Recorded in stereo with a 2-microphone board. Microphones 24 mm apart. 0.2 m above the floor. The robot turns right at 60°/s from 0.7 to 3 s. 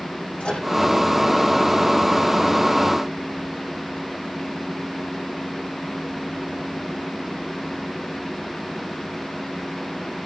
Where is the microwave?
55° left (ahead or behind), 8.5 m.